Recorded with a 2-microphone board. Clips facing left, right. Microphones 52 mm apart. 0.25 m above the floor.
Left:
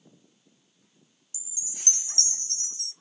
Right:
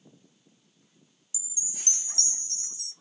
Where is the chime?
55° left (ahead or behind), 0.6 m.